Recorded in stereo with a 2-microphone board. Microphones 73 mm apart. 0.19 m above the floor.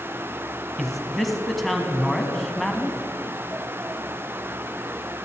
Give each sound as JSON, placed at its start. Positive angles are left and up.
{"t": 0.8, "sound": "a man speaking", "side_deg": 0, "distance_m": 1.3}